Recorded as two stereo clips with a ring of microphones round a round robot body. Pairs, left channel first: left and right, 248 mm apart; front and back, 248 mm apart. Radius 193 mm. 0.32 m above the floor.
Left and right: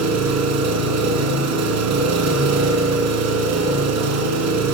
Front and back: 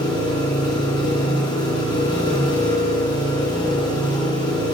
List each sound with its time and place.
0.0 s an engine running: 75° right, 3.5 m